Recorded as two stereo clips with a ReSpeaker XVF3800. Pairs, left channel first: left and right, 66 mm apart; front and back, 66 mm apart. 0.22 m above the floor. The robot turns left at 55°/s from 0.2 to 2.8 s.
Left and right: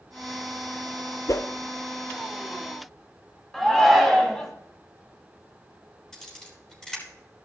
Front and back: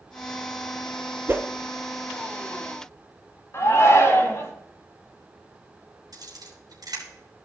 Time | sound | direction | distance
1.3 | a whoosh | 125° left | 0.7 m
3.5 | a shout | 5° left | 2.0 m
6.1 | a camera shutter | 170° left | 3.5 m